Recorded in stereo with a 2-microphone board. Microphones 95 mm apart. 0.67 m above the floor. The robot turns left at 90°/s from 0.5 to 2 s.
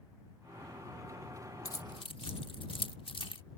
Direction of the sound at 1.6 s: 35° left (ahead or behind).